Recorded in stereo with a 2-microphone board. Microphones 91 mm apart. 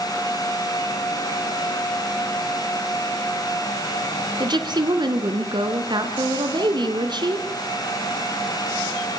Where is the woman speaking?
55° right (ahead or behind), 3 m.